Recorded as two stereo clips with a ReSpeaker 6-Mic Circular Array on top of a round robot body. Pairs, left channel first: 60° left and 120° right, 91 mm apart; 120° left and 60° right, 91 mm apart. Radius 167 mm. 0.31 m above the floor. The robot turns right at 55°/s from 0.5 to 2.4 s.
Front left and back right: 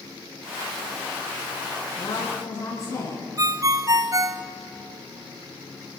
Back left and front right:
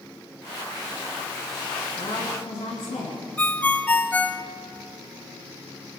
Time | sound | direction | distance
2.0 | a woman speaking | 90° left | 6.5 m
3.4 | a ringtone | 165° right | 0.9 m